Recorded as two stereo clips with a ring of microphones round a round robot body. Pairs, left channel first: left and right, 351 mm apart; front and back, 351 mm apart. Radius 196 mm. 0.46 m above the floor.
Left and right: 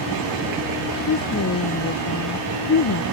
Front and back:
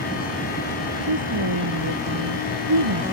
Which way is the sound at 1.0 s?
140° left.